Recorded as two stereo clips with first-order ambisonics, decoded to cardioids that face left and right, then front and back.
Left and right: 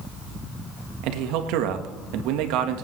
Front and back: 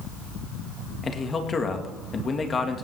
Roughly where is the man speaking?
Right.